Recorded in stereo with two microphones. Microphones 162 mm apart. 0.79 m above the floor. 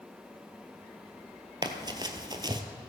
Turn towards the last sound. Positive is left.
turn(degrees=-25)  # may be behind; listen again after turning